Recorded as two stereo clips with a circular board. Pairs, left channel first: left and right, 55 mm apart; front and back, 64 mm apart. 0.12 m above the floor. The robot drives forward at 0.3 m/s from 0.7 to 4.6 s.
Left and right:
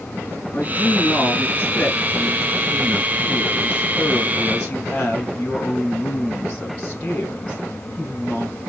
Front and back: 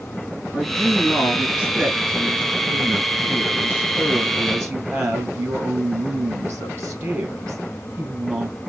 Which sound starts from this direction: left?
A woman speaking, at 0.5 s.